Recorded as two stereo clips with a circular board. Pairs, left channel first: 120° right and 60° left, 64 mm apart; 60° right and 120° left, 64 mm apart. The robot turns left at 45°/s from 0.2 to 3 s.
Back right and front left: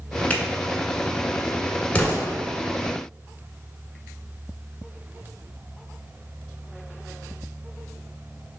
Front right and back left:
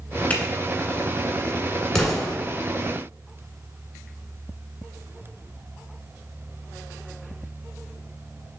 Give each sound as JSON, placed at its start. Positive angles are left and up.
{"t": 0.3, "sound": "a finger snap", "azimuth_deg": -85, "distance_m": 1.1}
{"t": 1.9, "sound": "an explosion", "azimuth_deg": -120, "distance_m": 1.4}